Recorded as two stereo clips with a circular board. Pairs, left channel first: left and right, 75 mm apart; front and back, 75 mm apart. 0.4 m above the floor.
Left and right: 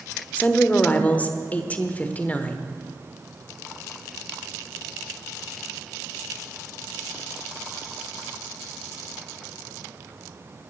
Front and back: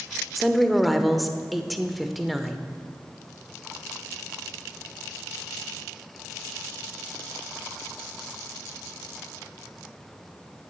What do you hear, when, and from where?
0.3 s a woman speaking: 90° left, 1.0 m